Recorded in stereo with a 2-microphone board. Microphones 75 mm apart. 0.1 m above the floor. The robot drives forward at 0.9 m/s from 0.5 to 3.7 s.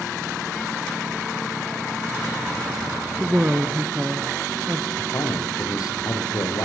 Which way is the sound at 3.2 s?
25° right (ahead or behind).